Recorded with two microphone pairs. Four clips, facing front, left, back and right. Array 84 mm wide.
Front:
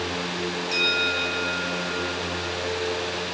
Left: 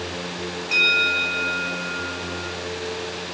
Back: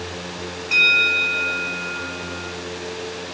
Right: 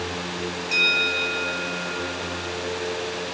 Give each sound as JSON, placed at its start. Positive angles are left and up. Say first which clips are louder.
{"t": 0.7, "sound": "a bell", "louder": "left 4 dB, back 7 dB", "azimuth_deg": 155, "distance_m": 2.5}